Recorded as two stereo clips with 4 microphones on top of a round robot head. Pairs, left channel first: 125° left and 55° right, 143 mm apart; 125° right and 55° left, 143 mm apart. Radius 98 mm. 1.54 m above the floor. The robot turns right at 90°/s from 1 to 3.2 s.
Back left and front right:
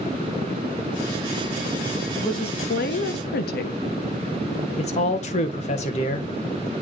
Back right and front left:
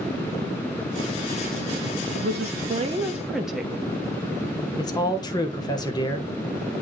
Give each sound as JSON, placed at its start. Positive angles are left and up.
{"t": 2.1, "sound": "a woman speaking", "azimuth_deg": 45, "distance_m": 1.0}
{"t": 4.8, "sound": "a man speaking", "azimuth_deg": 170, "distance_m": 1.2}